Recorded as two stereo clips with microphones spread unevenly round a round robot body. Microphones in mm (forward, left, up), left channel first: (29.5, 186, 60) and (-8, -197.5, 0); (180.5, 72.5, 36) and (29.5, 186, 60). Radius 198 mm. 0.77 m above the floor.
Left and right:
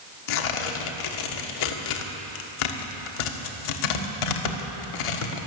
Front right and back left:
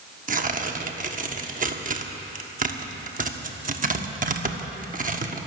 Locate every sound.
0.3 s tearing paper: 95° left, 1.5 m